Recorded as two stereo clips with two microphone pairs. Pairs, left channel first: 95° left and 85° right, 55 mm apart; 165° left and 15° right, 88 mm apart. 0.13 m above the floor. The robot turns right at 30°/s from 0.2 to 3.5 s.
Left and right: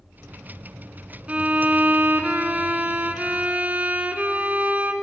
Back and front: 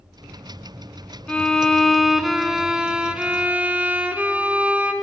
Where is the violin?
130° right, 0.5 m; by 4.9 s 60° right, 0.5 m.